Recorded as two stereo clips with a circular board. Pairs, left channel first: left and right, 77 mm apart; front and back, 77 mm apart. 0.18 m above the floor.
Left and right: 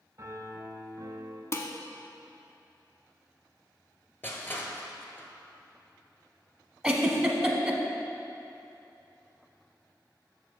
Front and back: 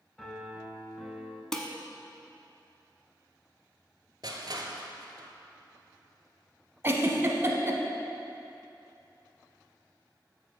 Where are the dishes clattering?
80° left, 0.9 m.